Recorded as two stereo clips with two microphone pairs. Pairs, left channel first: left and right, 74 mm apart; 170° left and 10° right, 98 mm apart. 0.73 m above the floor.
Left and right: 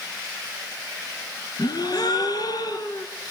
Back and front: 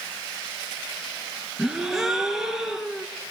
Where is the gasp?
75° left, 1.8 m.